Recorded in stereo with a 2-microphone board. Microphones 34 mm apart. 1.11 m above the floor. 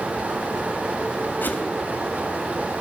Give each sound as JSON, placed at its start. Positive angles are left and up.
{"t": 1.4, "sound": "a whoosh", "side_deg": 70, "distance_m": 2.5}